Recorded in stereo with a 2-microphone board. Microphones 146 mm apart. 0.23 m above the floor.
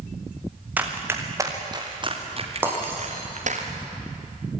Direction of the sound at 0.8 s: 10° right (ahead or behind).